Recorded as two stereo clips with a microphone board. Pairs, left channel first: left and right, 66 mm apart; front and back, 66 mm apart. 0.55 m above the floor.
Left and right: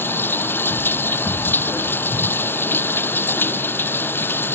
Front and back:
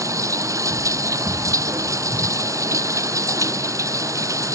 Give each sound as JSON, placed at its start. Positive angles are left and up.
{"t": 0.0, "sound": "running water", "azimuth_deg": 145}